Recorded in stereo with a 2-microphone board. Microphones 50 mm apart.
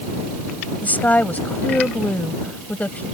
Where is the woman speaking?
30° left (ahead or behind).